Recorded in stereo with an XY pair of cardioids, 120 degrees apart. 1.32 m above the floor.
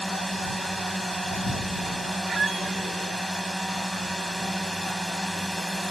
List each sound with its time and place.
0.0 s a drone: 5° right
2.3 s a squeak: 30° right